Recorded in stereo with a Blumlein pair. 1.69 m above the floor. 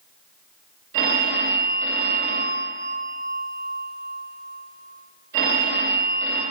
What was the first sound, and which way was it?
A phone ringing, 60° right.